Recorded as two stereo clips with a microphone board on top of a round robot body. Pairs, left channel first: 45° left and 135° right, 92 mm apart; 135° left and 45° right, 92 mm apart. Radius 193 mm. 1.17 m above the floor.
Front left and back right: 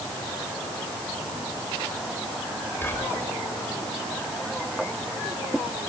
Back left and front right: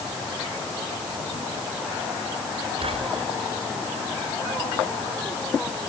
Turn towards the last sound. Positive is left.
turn(degrees=-25)